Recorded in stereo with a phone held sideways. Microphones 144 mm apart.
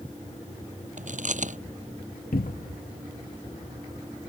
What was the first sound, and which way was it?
Chewing, 60° right (ahead or behind).